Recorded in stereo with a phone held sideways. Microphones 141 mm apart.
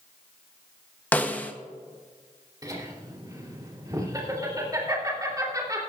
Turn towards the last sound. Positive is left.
turn(degrees=-25)  # may be behind; listen again after turning